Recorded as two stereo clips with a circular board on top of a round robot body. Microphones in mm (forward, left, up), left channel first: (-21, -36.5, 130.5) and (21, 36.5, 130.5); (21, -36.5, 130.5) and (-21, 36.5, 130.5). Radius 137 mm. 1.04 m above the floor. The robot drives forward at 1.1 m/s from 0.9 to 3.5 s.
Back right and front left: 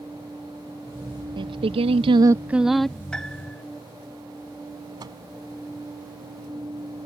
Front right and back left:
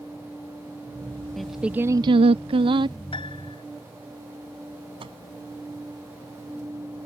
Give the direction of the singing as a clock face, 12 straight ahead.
11 o'clock.